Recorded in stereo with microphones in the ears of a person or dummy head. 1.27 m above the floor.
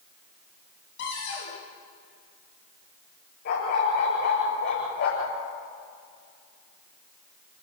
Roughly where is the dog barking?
Left.